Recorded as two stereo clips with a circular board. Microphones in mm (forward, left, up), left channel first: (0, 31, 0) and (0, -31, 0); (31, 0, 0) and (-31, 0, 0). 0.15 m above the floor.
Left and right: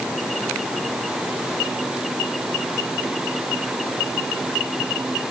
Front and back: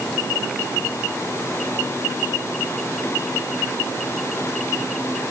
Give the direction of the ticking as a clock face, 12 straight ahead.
I don't hear ticking.